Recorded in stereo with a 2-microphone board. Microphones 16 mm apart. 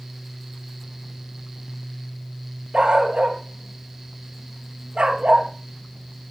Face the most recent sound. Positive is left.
turn(degrees=-70)  # may be behind; listen again after turning